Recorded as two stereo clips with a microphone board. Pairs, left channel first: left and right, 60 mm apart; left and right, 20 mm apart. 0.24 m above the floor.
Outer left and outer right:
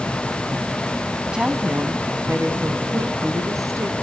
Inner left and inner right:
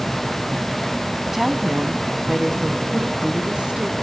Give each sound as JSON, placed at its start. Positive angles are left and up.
{"t": 1.3, "sound": "a woman speaking", "side_deg": -15, "distance_m": 1.6}